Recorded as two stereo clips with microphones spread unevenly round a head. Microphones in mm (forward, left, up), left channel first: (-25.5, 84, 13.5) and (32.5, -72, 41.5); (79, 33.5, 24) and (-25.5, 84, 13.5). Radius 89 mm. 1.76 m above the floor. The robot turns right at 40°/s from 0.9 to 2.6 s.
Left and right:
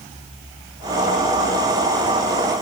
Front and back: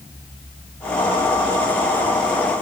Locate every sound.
Only background noise.